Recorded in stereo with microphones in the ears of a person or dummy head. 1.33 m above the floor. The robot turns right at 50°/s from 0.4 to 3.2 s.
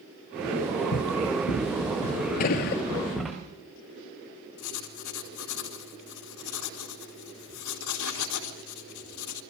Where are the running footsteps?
60° left (ahead or behind), 4.5 m; by 3.4 s centre (ahead or behind), 7 m.